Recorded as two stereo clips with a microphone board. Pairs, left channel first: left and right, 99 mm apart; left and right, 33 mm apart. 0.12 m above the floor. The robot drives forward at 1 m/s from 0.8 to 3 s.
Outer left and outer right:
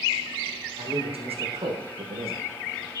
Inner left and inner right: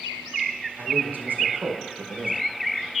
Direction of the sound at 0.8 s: 70° right (ahead or behind).